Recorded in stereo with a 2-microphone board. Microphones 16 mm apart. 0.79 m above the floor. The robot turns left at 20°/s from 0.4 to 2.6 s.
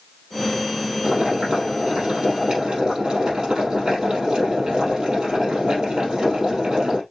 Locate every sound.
1.0 s boiling: 80° right, 3.5 m; by 7.0 s 115° right, 3.5 m